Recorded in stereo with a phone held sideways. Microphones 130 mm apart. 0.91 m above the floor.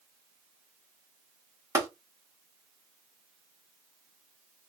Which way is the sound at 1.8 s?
25° right (ahead or behind).